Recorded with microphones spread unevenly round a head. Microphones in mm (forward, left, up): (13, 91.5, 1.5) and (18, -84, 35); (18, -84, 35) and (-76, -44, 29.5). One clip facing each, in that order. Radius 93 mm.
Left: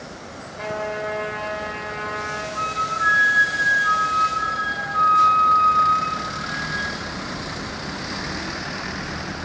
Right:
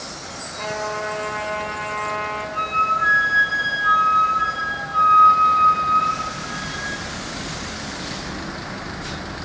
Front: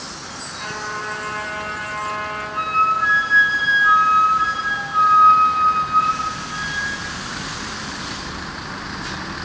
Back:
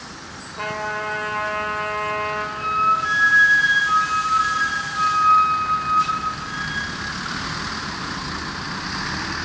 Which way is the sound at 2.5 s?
30° right.